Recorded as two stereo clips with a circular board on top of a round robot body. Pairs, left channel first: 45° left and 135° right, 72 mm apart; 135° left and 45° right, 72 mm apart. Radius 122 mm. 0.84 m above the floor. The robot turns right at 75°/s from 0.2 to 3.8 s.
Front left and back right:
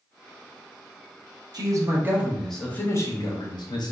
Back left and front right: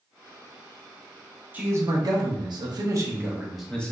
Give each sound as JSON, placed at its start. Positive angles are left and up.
{"t": 1.5, "sound": "a man speaking", "azimuth_deg": -110, "distance_m": 0.8}